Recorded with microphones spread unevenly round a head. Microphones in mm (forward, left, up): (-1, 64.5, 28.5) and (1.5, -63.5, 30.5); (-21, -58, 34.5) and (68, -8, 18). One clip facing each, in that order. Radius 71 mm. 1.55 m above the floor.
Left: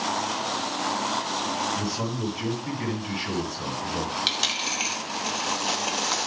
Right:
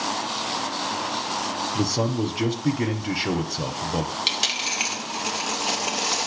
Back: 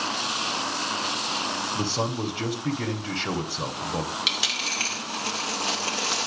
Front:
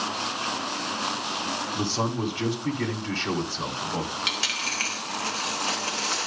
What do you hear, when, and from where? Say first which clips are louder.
1.8 s a man speaking: right 5 dB, front 1 dB; 70° right, 1.3 m
4.3 s a dropped coin: right 1 dB, even; 165° right, 1.0 m